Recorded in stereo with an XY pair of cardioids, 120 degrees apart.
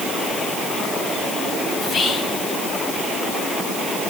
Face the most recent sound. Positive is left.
turn(degrees=45)